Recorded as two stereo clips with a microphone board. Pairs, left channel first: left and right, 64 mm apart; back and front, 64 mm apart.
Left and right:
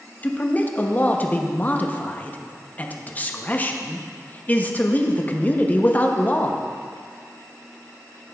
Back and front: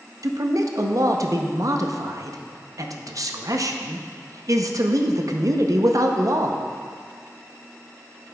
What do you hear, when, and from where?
0.2 s a man speaking: 30° left, 0.6 m